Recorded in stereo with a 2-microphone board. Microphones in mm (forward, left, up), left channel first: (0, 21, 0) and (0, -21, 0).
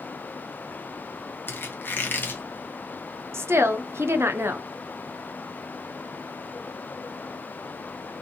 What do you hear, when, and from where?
1.5 s a squeak: 50° left (ahead or behind), 0.8 m
3.3 s a woman speaking: 80° right, 0.5 m